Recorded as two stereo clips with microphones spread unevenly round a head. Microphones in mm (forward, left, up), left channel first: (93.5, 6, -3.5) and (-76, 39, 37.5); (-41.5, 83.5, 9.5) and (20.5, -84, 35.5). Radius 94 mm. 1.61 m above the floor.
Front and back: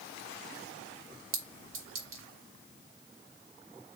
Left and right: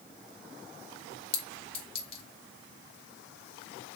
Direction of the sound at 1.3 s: 170° left.